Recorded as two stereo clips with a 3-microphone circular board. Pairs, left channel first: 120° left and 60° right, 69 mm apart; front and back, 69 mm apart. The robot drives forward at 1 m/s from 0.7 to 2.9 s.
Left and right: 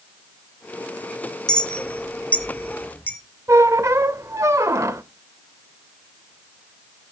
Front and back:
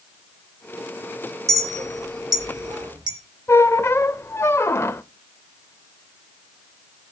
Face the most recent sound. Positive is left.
turn(degrees=-35)